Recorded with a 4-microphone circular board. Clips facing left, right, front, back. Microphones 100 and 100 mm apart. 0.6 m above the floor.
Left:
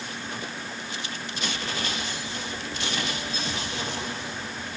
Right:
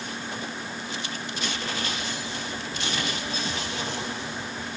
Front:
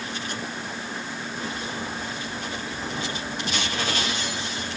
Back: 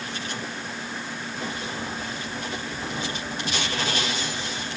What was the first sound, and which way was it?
Only background noise.